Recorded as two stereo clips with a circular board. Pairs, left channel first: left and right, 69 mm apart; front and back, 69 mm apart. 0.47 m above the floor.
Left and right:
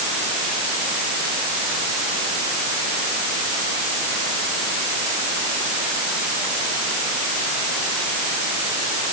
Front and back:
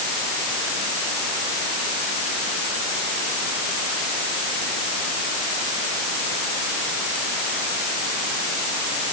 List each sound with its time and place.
Only background noise.